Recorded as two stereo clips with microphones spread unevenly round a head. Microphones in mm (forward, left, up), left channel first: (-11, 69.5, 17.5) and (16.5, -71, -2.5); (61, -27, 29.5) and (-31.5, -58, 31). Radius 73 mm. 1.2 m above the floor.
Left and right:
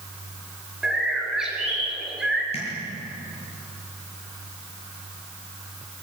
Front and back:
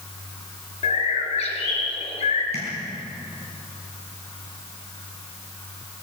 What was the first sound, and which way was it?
A bird, 10° left.